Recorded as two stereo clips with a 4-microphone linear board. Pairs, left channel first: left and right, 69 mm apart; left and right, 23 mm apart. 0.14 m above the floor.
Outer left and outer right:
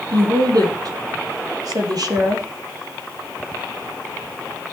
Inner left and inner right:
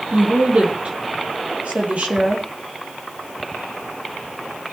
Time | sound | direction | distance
0.1 | a woman speaking | 70° right (ahead or behind) | 4 m